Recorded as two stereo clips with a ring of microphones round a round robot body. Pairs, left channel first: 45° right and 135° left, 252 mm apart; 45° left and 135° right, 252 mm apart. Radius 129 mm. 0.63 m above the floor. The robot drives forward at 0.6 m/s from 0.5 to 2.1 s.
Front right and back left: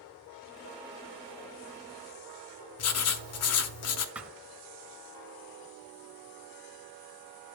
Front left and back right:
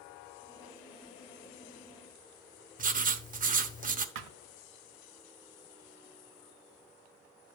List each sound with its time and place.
2.8 s writing: 75° right, 1.2 m
4.2 s a thud: 140° right, 1.0 m